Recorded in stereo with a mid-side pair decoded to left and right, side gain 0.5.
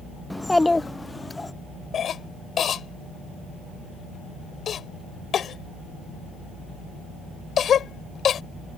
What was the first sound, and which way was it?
A child speaking, straight ahead.